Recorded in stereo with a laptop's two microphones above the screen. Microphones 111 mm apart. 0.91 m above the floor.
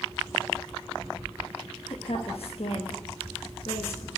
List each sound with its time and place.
1.9 s a woman speaking: 60° left (ahead or behind), 1.0 m